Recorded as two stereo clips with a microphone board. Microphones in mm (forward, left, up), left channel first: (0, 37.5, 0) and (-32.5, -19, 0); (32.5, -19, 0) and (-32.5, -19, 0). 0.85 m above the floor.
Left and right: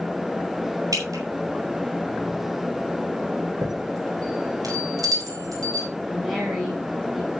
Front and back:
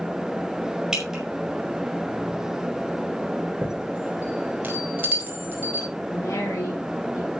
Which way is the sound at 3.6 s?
120° right.